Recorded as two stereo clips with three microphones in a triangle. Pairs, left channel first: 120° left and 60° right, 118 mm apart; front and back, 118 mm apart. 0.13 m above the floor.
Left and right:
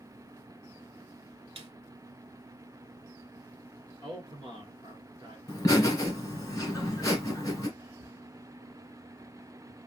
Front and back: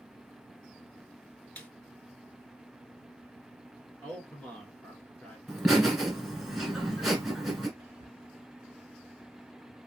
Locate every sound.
1.6 s a snare drum: 75° right, 0.6 m
4.0 s a man speaking: 65° right, 1.6 m
5.5 s laughter: 95° left, 1.2 m
7.8 s whispering: 120° right, 1.2 m